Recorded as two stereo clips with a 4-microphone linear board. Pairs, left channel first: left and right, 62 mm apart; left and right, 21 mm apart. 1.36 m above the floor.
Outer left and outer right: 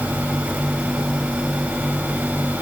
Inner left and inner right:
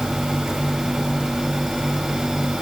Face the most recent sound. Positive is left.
No sound to turn to.